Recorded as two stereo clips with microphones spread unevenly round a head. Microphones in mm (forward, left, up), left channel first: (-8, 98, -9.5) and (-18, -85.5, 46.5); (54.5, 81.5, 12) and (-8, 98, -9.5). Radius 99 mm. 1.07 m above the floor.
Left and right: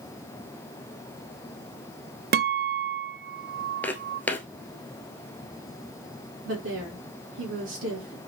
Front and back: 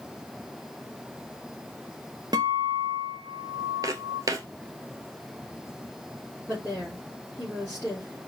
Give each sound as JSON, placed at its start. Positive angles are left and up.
{"t": 2.3, "sound": "a guitar", "azimuth_deg": -135, "distance_m": 0.6}
{"t": 3.8, "sound": "footsteps", "azimuth_deg": -170, "distance_m": 1.2}
{"t": 6.5, "sound": "a woman speaking", "azimuth_deg": -110, "distance_m": 4.0}